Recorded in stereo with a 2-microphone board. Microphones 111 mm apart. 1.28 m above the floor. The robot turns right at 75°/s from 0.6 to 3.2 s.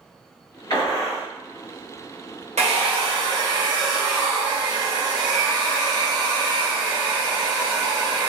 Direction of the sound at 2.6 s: 80° right.